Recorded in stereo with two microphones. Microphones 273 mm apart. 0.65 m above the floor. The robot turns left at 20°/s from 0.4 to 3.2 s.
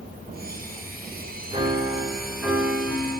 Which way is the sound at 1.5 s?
155° right.